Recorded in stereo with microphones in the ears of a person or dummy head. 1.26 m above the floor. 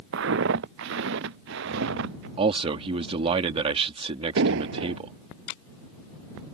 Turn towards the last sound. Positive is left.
turn(degrees=-70)  # may be behind; listen again after turning